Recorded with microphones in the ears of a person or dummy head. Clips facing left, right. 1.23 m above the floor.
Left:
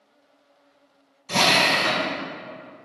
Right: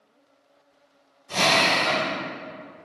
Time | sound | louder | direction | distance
1.3 | a drill | left 1 dB | 65° left (ahead or behind) | 1.3 m